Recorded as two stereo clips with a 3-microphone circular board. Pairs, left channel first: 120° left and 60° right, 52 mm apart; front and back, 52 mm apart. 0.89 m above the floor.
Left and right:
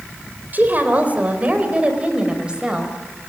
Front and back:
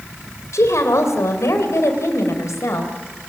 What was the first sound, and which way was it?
A woman speaking, 10° right.